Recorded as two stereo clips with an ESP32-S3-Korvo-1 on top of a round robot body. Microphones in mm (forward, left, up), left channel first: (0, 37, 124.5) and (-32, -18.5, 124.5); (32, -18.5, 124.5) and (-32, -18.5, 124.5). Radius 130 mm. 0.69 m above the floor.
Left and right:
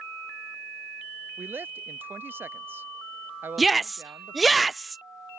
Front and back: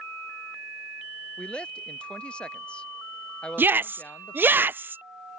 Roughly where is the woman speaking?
Right.